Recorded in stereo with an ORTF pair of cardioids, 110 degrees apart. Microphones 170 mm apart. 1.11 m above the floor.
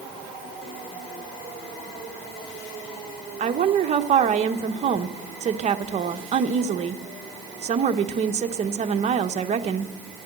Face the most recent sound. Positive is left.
turn(degrees=-40)